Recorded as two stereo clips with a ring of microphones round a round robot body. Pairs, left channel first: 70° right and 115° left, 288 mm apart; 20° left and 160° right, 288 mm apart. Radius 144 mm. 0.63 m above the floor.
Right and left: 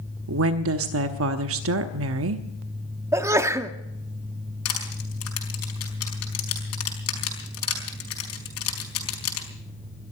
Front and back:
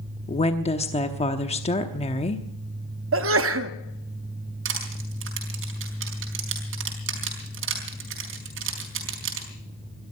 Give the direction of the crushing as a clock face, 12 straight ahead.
4 o'clock.